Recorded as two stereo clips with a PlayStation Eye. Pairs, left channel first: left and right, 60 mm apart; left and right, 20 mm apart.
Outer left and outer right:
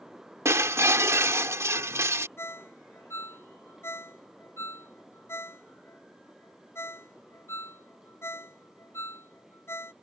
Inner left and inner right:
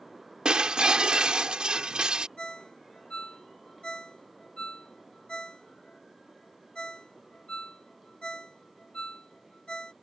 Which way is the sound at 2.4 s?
45° left (ahead or behind).